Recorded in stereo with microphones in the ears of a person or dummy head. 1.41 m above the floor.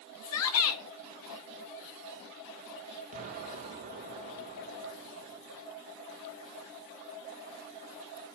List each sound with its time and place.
0.2 s a shout: 70° left (ahead or behind), 1.0 m
3.1 s an explosion: 35° right (ahead or behind), 1.7 m